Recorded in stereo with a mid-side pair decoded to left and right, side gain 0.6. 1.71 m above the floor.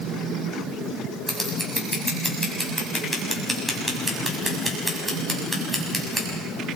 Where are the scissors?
Straight ahead, 6.5 m.